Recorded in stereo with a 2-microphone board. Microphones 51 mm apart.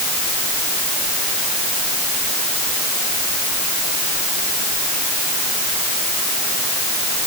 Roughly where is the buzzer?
No buzzer in this recording.